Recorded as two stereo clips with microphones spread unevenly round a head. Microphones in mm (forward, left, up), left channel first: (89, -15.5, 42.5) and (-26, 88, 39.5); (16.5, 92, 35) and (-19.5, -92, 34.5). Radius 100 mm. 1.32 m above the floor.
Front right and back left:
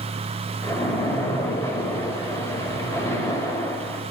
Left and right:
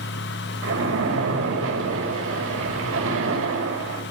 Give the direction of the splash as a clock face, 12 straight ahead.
4 o'clock.